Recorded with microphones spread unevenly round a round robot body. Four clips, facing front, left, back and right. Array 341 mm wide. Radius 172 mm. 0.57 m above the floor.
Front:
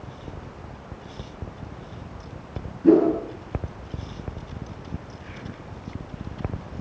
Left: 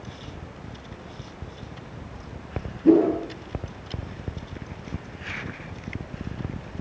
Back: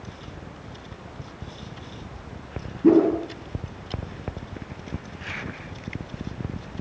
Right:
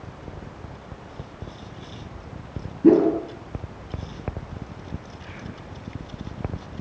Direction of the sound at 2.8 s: 120° right.